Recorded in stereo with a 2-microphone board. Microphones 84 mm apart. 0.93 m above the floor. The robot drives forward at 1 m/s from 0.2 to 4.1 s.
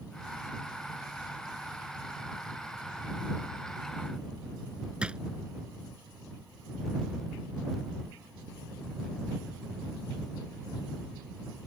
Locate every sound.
5.0 s a drawer: 10° right (ahead or behind)